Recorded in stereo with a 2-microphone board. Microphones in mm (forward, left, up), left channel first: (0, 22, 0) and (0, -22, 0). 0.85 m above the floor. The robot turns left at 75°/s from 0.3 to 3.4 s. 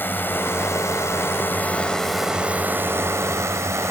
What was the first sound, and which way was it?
A drone, 45° left (ahead or behind).